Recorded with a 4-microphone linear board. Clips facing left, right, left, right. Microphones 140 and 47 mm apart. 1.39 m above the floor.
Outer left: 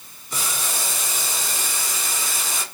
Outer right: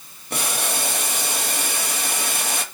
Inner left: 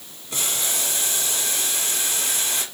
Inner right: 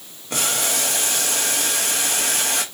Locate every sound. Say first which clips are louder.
0.3 s boiling: outer right 4 dB, inner right 5 dB; 65° right (ahead or behind), 2.5 m